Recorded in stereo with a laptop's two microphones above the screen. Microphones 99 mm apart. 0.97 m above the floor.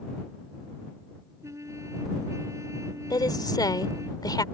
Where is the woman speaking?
45° left (ahead or behind).